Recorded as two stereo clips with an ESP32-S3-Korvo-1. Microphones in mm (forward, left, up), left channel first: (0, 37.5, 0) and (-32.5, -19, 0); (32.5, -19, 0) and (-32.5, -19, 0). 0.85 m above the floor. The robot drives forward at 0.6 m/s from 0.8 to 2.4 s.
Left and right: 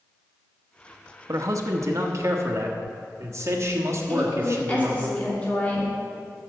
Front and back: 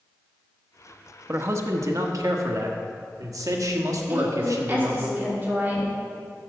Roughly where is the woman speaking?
Behind left.